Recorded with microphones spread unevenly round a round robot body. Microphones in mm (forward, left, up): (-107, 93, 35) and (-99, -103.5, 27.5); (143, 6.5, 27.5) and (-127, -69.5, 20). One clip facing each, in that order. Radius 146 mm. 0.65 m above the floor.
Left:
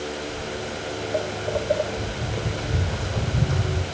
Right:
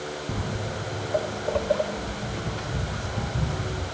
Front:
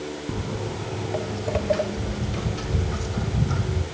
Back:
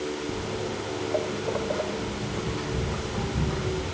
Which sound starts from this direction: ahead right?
Footsteps, at 0.3 s.